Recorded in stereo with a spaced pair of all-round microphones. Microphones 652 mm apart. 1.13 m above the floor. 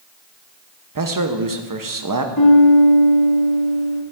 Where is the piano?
35° left (ahead or behind), 1.8 m.